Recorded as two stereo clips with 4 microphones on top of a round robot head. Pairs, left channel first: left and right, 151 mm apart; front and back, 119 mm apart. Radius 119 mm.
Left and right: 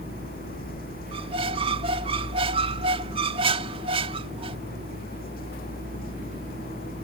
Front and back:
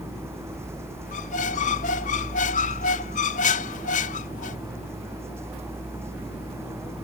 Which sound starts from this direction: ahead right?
A squeak, at 1.1 s.